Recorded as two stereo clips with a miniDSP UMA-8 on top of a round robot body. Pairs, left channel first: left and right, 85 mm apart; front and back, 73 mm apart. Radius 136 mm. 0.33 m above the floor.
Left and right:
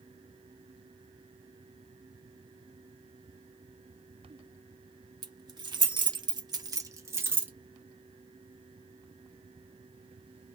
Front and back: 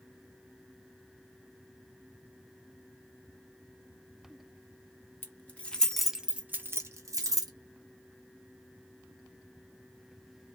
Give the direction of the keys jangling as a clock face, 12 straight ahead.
2 o'clock.